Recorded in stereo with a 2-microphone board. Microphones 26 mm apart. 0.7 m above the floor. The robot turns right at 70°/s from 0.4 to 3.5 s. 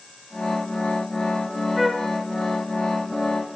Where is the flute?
5° right (ahead or behind), 0.7 m; by 2.1 s 20° left (ahead or behind), 0.7 m.